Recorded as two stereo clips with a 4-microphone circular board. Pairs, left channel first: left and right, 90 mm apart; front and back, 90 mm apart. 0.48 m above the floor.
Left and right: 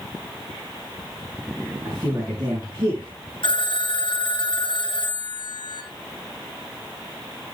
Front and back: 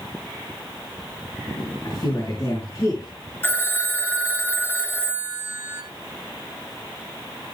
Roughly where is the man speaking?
Ahead right.